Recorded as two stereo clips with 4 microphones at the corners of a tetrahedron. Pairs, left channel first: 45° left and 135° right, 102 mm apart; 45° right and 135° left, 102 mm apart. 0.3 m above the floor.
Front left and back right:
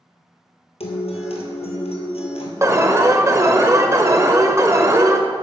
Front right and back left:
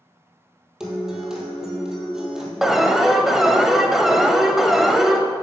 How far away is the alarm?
About 0.6 m.